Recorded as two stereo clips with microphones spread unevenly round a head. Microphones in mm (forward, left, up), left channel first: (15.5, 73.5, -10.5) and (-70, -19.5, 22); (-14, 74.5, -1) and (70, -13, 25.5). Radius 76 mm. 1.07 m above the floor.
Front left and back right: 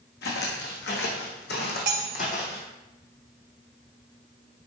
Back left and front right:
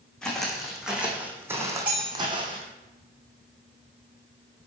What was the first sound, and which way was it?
Footsteps, 45° left.